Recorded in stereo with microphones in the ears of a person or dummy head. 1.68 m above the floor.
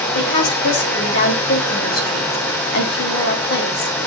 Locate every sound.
0.1 s a woman speaking: 65° left (ahead or behind), 2.5 m